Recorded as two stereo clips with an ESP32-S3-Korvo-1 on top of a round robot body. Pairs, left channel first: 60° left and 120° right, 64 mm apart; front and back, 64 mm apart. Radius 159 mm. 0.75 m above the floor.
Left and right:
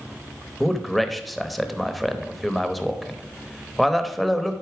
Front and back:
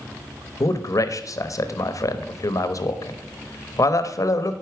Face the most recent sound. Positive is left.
turn(degrees=-30)